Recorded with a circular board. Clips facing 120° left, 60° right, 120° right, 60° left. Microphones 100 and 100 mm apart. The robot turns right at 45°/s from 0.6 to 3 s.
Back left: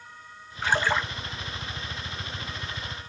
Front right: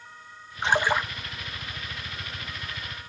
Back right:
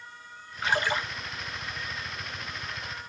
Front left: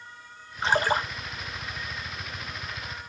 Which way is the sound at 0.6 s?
5° left.